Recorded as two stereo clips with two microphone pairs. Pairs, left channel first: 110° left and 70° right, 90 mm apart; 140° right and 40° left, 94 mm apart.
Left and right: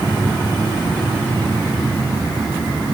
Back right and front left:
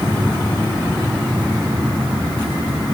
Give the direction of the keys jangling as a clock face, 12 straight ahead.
I don't hear keys jangling.